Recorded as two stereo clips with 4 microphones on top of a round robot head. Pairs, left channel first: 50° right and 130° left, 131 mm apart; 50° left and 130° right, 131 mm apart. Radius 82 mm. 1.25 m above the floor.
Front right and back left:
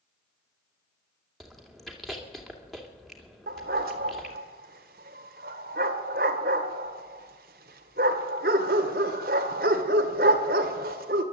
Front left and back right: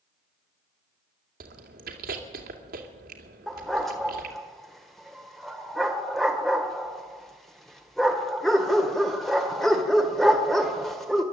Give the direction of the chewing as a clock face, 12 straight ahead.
5 o'clock.